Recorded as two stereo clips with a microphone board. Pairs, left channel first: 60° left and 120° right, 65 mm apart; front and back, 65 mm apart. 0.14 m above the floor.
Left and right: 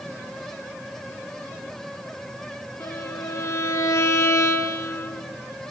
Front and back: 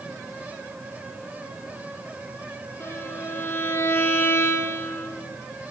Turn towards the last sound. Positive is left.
turn(degrees=40)